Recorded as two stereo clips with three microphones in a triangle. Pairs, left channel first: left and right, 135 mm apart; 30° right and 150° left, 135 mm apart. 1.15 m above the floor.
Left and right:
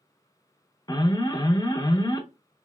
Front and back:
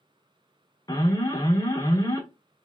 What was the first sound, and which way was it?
An alarm, 30° left.